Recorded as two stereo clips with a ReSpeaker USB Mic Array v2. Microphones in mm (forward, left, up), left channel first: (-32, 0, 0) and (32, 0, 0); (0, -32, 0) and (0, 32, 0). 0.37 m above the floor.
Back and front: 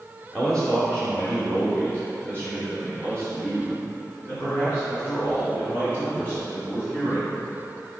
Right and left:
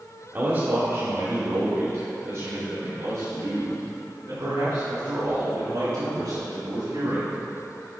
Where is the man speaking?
110° left, 1.0 m; by 7.4 s 120° left, 4.5 m.